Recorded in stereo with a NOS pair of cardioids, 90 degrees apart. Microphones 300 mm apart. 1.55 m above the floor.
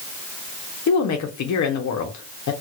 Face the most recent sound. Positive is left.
turn(degrees=70)